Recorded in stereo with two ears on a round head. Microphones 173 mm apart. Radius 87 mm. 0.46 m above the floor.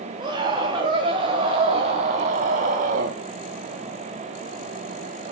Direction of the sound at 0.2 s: 25° right (ahead or behind).